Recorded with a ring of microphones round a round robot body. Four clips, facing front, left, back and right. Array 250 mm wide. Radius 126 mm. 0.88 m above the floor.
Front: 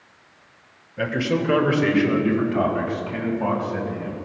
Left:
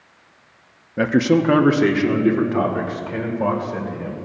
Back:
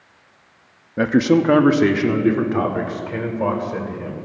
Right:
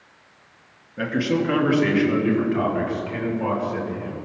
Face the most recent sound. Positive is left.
turn(degrees=155)